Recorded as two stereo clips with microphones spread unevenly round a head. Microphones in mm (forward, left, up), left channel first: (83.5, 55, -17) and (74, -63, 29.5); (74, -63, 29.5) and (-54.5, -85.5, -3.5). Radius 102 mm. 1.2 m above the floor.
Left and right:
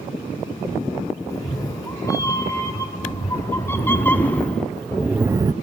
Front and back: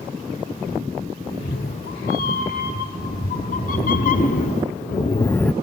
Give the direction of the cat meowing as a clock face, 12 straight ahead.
11 o'clock.